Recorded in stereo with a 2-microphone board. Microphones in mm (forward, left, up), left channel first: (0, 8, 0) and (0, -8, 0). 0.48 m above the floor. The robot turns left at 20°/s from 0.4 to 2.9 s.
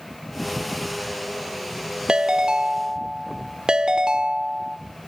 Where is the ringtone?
50° right (ahead or behind), 0.6 m; by 4.8 s 45° right (ahead or behind), 0.6 m.